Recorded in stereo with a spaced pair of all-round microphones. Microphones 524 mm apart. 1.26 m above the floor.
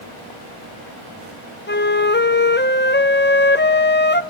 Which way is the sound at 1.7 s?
20° left (ahead or behind).